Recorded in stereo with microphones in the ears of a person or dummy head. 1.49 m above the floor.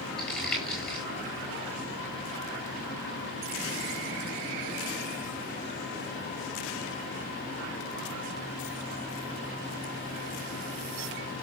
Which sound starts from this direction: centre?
Crumpling, at 0.2 s.